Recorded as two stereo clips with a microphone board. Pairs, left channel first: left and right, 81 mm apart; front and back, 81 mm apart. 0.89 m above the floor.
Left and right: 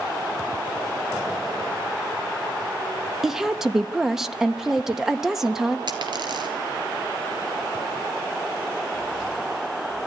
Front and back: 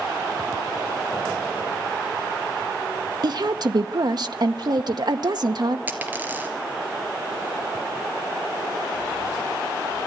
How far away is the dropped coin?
About 2.5 m.